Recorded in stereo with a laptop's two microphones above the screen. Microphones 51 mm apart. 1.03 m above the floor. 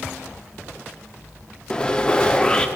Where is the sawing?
15° left (ahead or behind), 0.6 m.